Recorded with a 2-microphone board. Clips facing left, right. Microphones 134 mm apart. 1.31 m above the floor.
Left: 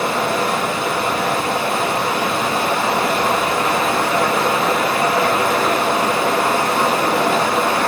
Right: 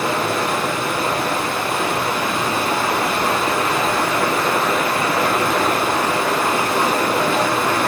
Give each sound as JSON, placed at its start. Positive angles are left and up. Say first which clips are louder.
{"t": 0.0, "sound": "running water", "louder": "left 1 dB", "side_deg": 80, "distance_m": 4.0}